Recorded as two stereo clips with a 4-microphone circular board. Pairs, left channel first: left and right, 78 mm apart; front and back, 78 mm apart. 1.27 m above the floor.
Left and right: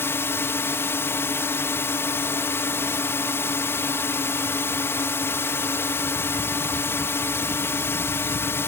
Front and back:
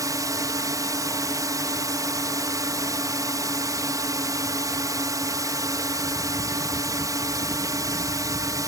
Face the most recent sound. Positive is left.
turn(degrees=145)